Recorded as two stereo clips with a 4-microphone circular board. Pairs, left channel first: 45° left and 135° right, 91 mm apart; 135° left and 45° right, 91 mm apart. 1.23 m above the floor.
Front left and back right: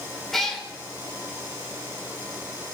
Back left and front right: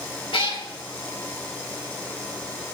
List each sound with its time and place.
0.3 s a cat meowing: 130° left, 1.9 m